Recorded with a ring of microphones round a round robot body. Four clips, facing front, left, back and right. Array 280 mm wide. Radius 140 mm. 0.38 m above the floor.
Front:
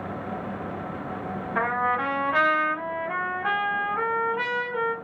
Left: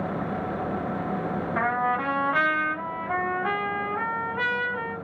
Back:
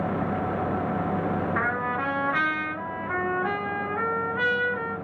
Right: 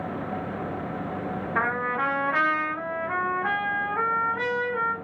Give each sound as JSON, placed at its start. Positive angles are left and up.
{"t": 1.6, "sound": "a trumpet", "azimuth_deg": -95, "distance_m": 1.8}